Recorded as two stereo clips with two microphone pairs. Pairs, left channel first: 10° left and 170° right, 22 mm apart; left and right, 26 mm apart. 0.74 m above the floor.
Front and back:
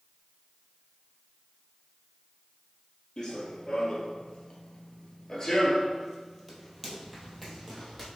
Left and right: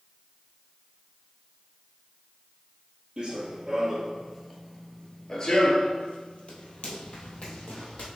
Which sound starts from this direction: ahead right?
Running footsteps, at 3.2 s.